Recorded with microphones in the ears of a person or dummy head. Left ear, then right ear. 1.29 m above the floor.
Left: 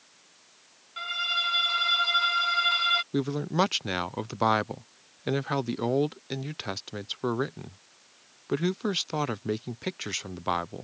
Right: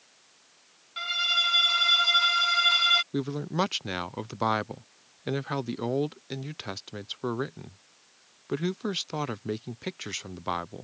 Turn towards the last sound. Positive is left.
turn(degrees=0)  # may be behind; listen again after turning